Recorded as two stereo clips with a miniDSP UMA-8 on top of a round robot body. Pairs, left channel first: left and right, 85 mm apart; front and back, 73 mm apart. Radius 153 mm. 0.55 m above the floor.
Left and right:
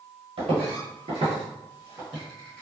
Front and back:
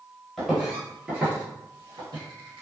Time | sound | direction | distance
0.4 | footsteps | 90° right | 1.1 m